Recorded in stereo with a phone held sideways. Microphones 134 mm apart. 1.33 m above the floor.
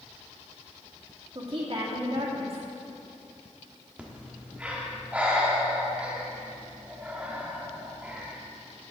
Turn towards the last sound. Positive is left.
turn(degrees=-10)  # may be behind; listen again after turning